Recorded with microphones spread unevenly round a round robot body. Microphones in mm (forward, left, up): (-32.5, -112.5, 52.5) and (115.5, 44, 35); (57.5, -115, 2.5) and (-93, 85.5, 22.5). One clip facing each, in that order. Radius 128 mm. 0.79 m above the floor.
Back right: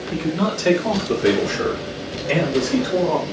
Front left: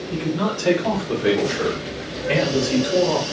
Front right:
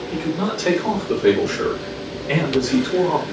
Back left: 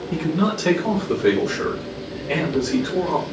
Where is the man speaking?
Straight behind, 1.2 m; by 3.2 s 20° right, 1.4 m.